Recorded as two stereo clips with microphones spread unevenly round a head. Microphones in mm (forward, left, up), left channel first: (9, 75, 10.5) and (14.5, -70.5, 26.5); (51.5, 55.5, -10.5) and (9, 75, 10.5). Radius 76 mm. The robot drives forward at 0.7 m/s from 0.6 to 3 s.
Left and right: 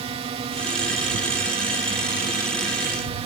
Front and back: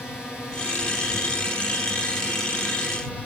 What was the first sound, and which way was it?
A drone, 95° right.